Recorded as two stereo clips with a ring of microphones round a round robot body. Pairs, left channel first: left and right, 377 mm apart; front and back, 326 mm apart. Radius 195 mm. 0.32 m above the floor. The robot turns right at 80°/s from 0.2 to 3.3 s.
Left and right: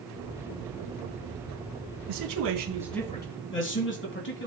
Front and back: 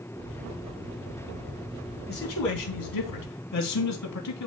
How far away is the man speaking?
About 3.5 m.